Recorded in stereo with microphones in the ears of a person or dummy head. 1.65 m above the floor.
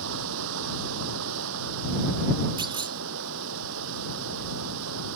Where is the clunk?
25° right (ahead or behind).